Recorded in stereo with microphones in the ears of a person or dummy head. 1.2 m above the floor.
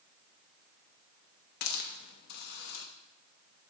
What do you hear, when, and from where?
1.6 s a hiss: 70° left (ahead or behind), 0.9 m